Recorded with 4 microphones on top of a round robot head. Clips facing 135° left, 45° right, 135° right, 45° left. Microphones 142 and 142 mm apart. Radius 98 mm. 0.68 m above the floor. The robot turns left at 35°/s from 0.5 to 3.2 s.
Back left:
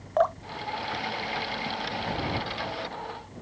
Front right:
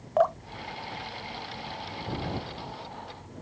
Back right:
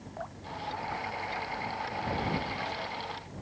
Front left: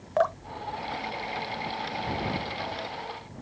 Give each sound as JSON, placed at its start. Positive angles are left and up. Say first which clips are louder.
{"t": 0.2, "sound": "dripping", "louder": "even, front left 15 dB", "azimuth_deg": 40}